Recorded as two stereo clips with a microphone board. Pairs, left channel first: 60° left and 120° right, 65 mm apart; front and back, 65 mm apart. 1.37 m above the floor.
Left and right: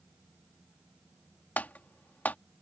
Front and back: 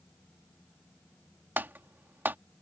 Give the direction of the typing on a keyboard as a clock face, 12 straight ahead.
8 o'clock.